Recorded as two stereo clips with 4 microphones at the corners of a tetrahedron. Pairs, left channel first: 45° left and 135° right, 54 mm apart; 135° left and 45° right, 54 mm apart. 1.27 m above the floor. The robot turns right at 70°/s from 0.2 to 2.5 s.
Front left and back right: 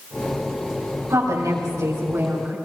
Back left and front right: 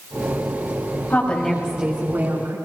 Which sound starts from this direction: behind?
A woman speaking, at 1.1 s.